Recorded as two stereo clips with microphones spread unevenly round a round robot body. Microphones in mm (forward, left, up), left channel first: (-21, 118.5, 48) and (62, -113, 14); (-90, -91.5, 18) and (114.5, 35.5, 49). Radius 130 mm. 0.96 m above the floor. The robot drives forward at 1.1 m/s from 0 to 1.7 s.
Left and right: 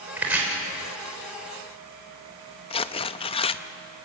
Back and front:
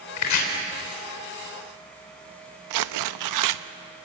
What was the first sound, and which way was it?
Chopping, 155° right.